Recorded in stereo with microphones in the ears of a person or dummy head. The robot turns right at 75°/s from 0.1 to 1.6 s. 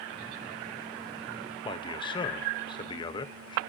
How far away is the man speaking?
About 1.1 m.